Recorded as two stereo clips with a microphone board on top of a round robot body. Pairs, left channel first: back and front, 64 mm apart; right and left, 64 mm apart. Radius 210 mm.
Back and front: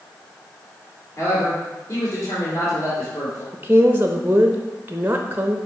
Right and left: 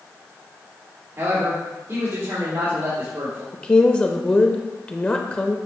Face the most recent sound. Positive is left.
turn(degrees=-35)